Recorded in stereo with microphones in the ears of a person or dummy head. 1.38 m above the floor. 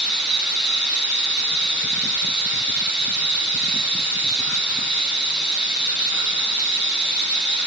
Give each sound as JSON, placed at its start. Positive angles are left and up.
{"t": 0.0, "sound": "running water", "side_deg": -10, "distance_m": 1.0}